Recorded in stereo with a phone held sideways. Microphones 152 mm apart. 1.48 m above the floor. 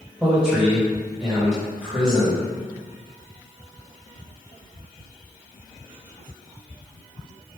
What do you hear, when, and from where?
0.2 s a man speaking: 5° right (ahead or behind), 1.5 m